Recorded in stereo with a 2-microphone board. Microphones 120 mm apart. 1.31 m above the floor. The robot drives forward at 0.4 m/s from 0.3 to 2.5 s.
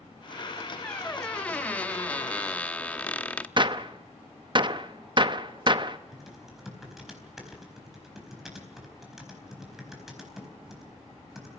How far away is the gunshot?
About 0.9 m.